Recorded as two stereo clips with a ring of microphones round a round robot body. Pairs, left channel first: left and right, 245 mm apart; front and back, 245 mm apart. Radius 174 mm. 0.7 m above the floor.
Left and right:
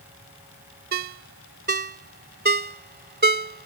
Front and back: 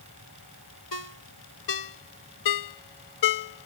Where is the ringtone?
35° right.